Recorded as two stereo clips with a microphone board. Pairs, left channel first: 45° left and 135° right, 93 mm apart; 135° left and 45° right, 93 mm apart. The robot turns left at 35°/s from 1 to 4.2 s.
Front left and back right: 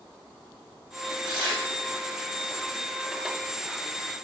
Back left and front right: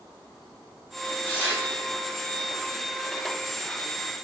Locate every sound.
1.2 s tearing paper: 155° right, 1.2 m; by 1.6 s 170° right, 1.2 m